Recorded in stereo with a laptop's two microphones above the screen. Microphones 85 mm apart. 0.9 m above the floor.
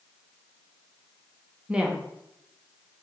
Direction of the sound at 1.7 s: 10° right (ahead or behind).